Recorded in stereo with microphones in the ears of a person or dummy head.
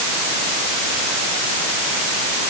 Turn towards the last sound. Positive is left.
No sound to turn to.